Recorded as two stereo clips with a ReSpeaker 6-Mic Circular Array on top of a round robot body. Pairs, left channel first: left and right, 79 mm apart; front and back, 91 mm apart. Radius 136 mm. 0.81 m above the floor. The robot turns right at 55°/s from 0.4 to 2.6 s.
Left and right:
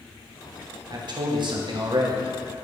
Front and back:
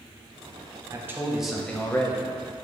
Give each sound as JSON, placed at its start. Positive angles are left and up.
{"t": 0.9, "sound": "a man speaking", "azimuth_deg": -120, "distance_m": 1.3}